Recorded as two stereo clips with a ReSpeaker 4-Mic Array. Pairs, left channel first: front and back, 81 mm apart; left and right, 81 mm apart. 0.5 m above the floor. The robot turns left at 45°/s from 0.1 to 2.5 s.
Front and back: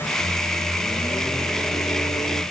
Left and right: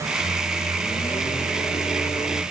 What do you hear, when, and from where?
0.2 s a microwave: 130° left, 1.0 m; by 2.4 s 30° left, 1.0 m